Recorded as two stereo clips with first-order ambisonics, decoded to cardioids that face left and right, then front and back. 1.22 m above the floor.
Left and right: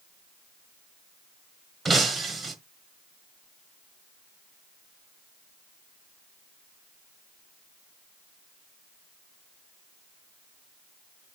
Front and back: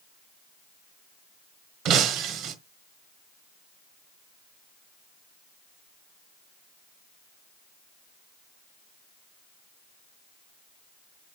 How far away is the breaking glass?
About 1.3 m.